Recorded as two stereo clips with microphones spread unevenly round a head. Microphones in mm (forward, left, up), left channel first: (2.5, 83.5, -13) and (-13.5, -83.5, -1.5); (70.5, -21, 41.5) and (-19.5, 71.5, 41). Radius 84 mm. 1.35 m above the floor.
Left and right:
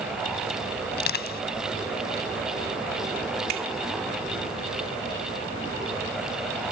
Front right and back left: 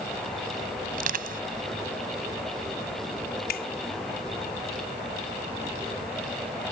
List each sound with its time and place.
0.9 s crushing: 120° left
3.5 s a finger snap: 55° right